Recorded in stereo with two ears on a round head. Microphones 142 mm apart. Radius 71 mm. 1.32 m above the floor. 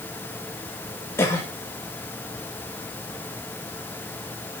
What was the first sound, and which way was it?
A cough, 20° left (ahead or behind).